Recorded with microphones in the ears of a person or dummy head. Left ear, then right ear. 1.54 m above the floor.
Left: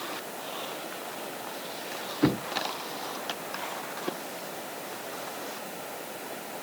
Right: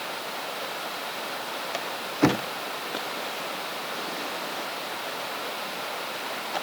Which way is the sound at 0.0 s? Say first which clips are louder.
Right 4 dB; 50° right (ahead or behind).